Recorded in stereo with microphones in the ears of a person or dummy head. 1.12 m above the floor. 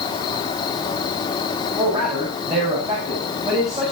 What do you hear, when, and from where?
0.0 s an insect: 20° left (ahead or behind), 1.9 m
1.8 s a man speaking: 25° right (ahead or behind), 6.5 m